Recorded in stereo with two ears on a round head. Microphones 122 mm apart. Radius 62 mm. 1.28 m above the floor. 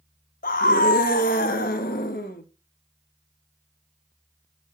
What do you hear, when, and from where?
0.4 s a scream: 70° left (ahead or behind), 1.3 m; by 2.4 s 75° left (ahead or behind), 2.5 m